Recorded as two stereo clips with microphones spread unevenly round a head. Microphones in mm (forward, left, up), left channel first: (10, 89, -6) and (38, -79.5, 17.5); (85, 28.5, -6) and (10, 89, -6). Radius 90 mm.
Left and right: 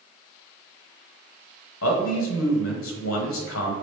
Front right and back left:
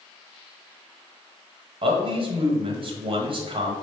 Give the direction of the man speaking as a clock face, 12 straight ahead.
8 o'clock.